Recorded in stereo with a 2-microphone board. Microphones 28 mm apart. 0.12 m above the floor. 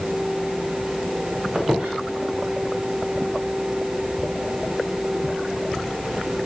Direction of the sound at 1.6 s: 60° right (ahead or behind).